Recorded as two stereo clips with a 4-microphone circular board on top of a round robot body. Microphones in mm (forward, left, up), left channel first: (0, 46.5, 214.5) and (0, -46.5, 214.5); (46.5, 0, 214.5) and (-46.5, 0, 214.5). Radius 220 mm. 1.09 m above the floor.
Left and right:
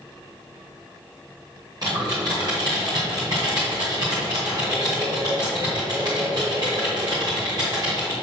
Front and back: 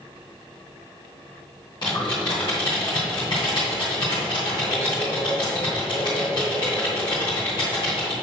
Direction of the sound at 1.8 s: 45° right.